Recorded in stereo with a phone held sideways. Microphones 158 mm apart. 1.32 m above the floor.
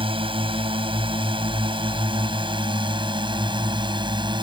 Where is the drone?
35° right (ahead or behind); by 4.4 s 30° right (ahead or behind).